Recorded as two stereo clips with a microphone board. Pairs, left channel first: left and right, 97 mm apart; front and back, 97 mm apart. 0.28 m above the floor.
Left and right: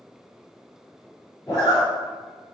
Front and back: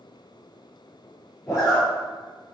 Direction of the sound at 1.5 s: 40° left.